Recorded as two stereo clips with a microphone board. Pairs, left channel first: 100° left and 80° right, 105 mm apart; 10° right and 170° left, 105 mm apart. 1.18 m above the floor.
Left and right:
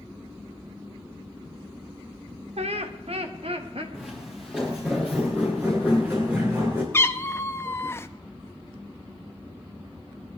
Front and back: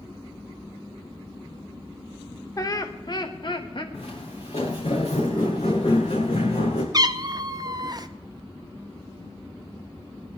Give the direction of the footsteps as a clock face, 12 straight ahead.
12 o'clock.